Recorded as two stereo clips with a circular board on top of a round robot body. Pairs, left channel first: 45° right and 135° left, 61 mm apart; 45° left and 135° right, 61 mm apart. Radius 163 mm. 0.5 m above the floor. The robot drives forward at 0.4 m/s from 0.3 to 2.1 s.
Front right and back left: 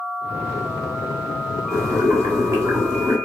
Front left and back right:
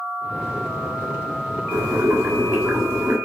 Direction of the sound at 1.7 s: 165° left.